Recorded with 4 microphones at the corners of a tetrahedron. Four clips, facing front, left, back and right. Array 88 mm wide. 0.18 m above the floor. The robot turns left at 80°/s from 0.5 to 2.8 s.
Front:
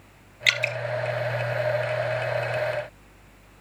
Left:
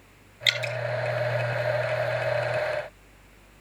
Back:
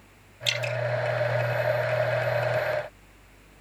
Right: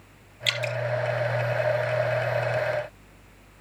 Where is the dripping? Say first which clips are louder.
Left 1 dB, front 5 dB; 15° left, 1.6 m; by 0.8 s 5° right, 1.6 m.